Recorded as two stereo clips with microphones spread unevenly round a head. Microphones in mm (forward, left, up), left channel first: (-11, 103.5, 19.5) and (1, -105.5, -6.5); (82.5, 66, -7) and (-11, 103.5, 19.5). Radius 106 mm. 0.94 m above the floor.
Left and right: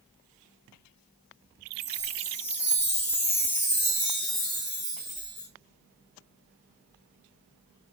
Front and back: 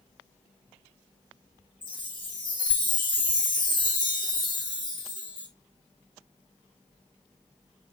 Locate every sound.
1.8 s a chime: 15° left, 1.5 m